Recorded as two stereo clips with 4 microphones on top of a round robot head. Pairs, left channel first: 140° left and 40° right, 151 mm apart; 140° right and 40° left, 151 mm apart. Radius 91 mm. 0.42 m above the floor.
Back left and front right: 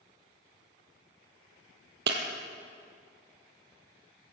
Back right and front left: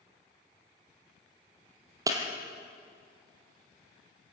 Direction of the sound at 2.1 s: 30° right.